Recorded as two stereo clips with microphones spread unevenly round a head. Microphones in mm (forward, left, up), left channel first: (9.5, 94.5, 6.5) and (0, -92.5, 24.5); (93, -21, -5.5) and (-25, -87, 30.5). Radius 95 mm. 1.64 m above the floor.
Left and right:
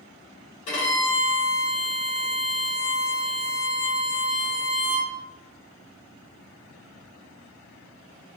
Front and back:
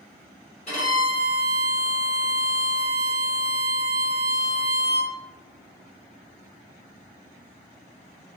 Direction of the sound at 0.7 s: 85° left.